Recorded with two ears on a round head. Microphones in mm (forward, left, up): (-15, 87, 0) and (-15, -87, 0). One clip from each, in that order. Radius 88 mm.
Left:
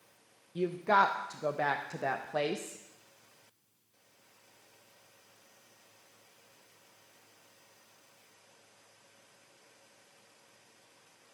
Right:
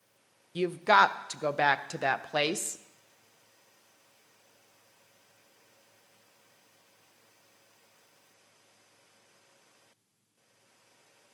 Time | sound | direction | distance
0.6 | a woman speaking | 75° right (ahead or behind) | 0.6 m